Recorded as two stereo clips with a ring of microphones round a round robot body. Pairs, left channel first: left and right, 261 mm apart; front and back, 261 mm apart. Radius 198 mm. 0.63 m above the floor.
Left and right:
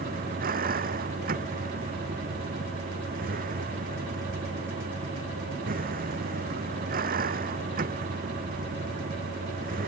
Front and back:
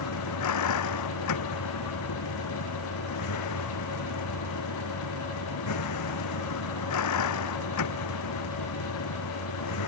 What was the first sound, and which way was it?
A vehicle, 25° right.